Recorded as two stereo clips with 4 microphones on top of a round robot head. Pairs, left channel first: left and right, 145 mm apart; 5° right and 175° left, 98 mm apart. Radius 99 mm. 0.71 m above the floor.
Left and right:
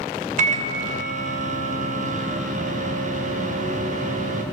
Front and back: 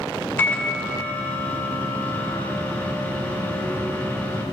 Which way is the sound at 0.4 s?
75° right.